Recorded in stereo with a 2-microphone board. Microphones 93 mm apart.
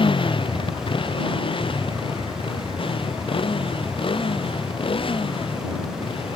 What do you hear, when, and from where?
0.0 s a motorcycle: 65° left (ahead or behind); by 6.4 s 70° left (ahead or behind)